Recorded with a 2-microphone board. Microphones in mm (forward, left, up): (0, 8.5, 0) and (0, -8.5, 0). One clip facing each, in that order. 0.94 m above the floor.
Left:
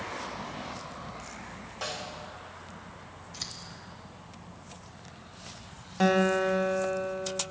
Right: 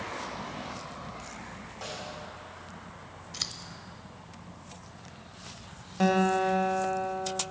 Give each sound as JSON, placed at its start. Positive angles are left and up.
{"t": 1.8, "sound": "a snare drum", "side_deg": 20, "distance_m": 1.6}
{"t": 3.3, "sound": "scissors", "side_deg": -30, "distance_m": 0.8}
{"t": 6.0, "sound": "a guitar", "side_deg": 10, "distance_m": 1.0}